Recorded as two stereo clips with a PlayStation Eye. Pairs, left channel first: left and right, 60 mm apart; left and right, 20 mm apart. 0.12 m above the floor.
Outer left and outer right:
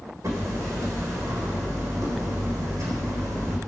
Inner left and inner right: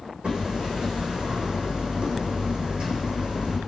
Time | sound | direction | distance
0.2 | hammering | 65° right (ahead or behind) | 3.5 m